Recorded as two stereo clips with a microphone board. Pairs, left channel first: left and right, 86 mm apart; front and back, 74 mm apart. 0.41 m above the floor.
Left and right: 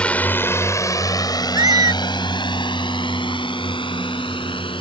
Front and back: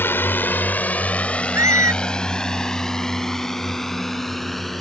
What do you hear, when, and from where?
0.0 s a drone: 25° left; by 4.8 s 90° left
1.5 s a squeak: 130° right